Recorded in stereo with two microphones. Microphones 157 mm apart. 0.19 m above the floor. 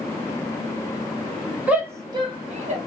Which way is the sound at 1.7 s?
10° right (ahead or behind).